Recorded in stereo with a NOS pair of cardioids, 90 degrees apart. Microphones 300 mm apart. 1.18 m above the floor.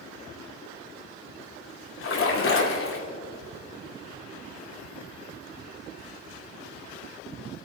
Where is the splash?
45° left, 3 m.